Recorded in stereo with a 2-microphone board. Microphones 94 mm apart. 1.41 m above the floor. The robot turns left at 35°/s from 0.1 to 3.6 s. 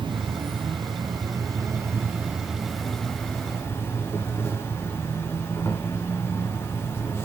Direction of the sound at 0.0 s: 85° right.